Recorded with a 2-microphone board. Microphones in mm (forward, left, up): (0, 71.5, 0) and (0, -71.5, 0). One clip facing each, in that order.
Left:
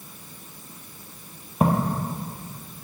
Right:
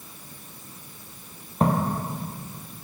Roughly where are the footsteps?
Centre.